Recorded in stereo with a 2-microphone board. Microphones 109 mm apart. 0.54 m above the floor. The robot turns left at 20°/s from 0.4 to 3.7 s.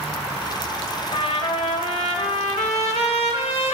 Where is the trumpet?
120° left, 0.9 m; by 3.8 s 70° left, 0.9 m.